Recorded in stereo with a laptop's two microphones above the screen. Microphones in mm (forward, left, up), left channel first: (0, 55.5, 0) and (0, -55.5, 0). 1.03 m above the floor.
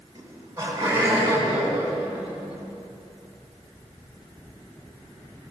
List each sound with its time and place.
0.1 s laughter: 25° right (ahead or behind), 9 m; by 2.6 s 15° right (ahead or behind), 12.5 m